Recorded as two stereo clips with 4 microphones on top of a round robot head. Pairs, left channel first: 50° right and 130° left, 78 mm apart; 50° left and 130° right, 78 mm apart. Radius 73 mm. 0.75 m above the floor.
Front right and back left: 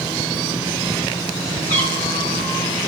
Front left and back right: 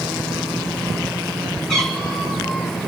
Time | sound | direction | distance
1.7 | a cat meowing | 30° right | 3.5 m